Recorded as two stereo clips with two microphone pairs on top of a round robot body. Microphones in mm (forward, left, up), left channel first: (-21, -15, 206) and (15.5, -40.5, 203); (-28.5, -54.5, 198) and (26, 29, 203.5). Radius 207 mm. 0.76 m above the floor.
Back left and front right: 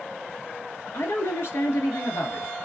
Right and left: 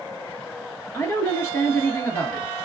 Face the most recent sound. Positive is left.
turn(degrees=175)